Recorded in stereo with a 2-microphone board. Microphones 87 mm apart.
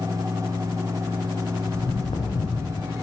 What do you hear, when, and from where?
1.7 s footsteps: 85° left, 3 m